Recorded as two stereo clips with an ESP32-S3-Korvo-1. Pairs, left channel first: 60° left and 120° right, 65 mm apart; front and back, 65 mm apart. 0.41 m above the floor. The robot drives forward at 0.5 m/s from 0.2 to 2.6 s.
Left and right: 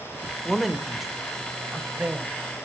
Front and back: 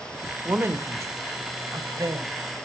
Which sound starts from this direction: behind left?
A woman speaking, at 0.5 s.